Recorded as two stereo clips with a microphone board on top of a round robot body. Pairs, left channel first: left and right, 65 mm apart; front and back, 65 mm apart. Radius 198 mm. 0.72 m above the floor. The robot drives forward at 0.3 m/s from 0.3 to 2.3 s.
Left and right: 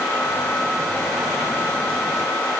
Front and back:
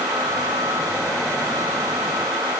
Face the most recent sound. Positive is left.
No sound to turn to.